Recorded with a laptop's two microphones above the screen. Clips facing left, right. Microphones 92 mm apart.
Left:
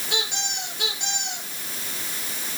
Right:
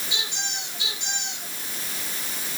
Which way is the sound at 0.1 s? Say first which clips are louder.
Left 6 dB; 60° left (ahead or behind).